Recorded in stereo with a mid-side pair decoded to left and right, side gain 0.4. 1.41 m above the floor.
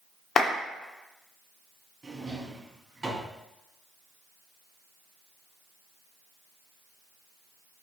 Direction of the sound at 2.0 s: 30° right.